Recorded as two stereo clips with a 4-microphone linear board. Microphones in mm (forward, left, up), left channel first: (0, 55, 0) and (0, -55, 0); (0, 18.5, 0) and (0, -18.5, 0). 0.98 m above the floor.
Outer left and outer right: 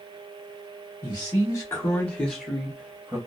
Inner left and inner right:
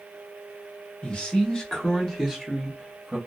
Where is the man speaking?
35° left (ahead or behind), 1.2 m; by 3.2 s 20° right (ahead or behind), 0.9 m.